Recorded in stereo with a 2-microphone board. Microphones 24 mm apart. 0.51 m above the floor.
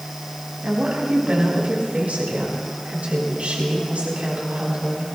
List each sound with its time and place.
0.6 s a woman speaking: 70° right (ahead or behind), 4.5 m